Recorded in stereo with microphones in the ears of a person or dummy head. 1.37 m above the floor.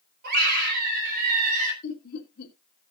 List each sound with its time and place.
0.2 s a scream: 55° right (ahead or behind), 6.5 m; by 1.7 s 50° right (ahead or behind), 6 m
1.8 s laughter: 55° left (ahead or behind), 3 m